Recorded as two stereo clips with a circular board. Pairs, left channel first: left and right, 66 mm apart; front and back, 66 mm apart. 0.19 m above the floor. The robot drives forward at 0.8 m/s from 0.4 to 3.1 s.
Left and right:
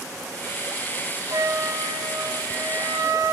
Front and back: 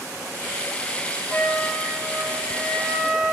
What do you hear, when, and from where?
1.3 s a flute: 70° right, 3 m; by 3.3 s 95° right, 3 m